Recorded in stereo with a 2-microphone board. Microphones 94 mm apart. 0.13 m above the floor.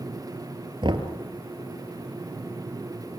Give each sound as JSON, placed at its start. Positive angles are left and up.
{"t": 0.8, "sound": "knocking", "side_deg": -55, "distance_m": 2.5}